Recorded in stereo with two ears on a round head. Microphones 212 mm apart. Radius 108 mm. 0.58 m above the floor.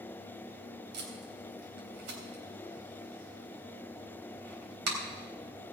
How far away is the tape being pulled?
About 3.5 m.